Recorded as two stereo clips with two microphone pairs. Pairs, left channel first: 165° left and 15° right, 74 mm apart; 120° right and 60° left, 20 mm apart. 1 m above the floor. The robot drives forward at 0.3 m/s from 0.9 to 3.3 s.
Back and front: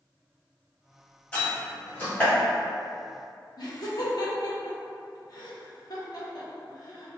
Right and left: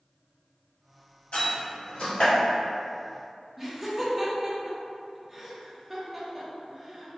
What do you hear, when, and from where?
1.3 s a door slam: 120° right, 1.6 m; by 2.3 s 130° right, 1.8 m
3.6 s laughter: 150° left, 0.9 m